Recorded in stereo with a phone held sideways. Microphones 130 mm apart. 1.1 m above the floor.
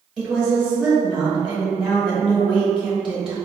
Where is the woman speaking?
5° right (ahead or behind), 0.9 m.